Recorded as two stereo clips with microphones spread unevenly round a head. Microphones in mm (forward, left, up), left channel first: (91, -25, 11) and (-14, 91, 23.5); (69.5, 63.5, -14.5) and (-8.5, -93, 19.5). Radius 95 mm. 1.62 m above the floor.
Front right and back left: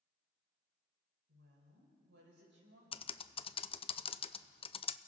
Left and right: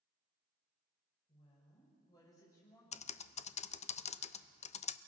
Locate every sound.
1.3 s a woman speaking: 130° left, 6.5 m; by 2.8 s 140° left, 7 m
2.9 s typing on a keyboard: 10° left, 0.7 m